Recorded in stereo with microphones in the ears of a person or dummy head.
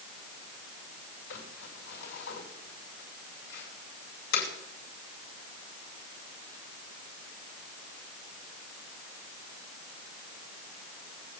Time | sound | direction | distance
1.3 | crumpling | 85° left | 6.5 m